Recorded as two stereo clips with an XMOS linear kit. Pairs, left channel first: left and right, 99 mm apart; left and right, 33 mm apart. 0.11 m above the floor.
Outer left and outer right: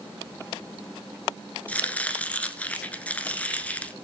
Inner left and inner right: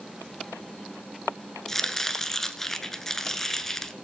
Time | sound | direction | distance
1.7 | chopping | 15° left (ahead or behind) | 1.0 m